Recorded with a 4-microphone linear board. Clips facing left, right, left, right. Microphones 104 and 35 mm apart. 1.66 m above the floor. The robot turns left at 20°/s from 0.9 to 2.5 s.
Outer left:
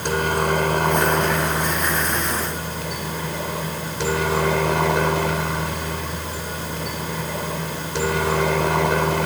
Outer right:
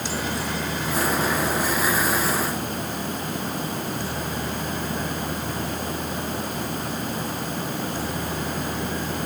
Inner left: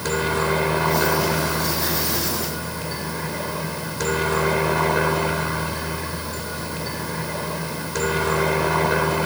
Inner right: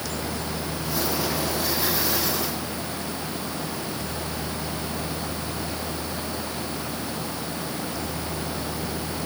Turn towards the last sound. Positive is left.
turn(degrees=90)